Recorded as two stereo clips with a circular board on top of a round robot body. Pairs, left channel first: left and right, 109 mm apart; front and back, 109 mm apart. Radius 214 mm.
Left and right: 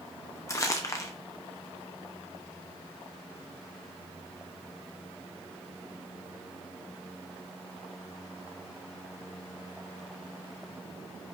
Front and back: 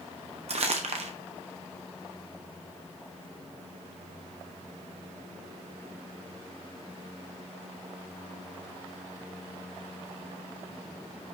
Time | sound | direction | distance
0.5 | crumpling | 150° left | 0.9 m